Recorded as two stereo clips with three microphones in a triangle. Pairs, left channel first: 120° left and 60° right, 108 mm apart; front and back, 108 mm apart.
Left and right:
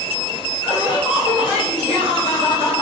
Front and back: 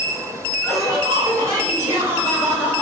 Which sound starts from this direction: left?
Laughter, at 0.6 s.